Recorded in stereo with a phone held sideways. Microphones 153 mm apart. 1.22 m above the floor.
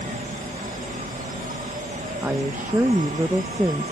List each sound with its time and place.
0.0 s an insect: 60° right (ahead or behind)
2.2 s a woman speaking: 15° right (ahead or behind)